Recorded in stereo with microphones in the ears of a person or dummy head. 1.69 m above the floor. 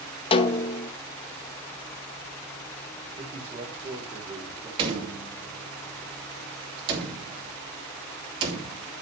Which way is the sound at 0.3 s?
35° left (ahead or behind).